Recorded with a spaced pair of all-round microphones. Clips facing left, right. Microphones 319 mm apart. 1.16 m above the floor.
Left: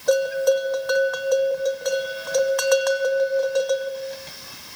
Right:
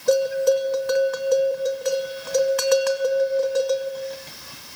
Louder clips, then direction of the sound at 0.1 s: Even; 35° right (ahead or behind).